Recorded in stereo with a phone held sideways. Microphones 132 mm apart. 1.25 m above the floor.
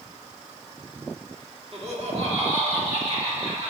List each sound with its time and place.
1.7 s laughter: 50° right (ahead or behind), 1.3 m; by 3.7 s 55° right (ahead or behind), 3.5 m